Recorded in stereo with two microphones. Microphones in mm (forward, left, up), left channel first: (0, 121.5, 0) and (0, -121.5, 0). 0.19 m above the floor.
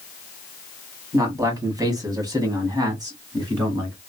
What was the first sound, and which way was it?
A man speaking, 15° right (ahead or behind).